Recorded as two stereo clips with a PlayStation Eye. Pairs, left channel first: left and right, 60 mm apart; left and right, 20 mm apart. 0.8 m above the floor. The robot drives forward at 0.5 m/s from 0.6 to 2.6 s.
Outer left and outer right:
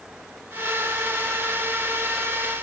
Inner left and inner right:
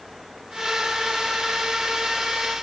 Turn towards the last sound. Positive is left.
No sound to turn to.